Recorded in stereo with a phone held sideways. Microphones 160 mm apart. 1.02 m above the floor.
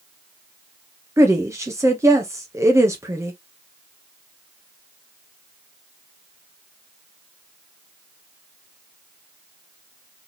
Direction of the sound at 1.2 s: 15° right (ahead or behind).